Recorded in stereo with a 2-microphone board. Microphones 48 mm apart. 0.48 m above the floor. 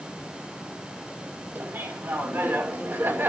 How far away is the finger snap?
No finger snap in this recording.